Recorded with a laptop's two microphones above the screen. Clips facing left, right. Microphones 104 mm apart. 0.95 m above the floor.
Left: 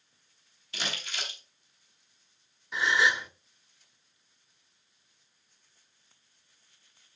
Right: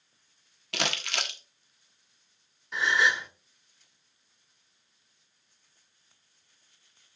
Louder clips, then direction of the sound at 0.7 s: Right 6 dB; 70° right (ahead or behind).